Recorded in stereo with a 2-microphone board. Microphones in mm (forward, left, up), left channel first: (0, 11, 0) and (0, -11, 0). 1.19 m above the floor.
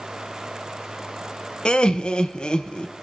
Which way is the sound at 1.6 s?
35° left (ahead or behind).